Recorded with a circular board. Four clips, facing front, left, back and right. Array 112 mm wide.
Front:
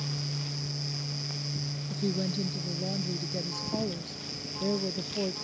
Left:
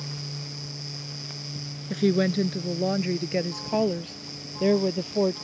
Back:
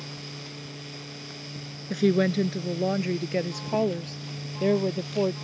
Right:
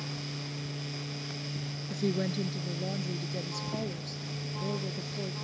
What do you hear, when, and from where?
1.9 s a woman speaking: 145° left; by 5.3 s 120° left